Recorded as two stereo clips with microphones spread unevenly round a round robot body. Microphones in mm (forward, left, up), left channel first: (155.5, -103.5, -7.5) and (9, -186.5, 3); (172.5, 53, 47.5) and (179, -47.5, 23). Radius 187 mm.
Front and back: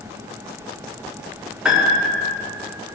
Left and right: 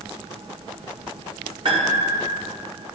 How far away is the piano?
About 1.8 m.